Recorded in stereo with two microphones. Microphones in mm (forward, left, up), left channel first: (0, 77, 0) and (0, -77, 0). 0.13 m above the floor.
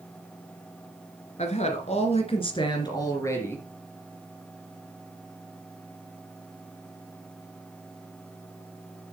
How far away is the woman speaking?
About 2 m.